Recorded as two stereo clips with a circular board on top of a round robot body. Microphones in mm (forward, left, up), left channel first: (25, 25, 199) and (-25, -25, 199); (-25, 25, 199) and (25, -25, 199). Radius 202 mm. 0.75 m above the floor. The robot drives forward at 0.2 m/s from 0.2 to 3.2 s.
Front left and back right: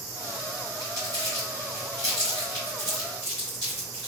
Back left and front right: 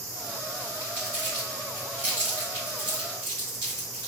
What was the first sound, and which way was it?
Crumpling, 90° right.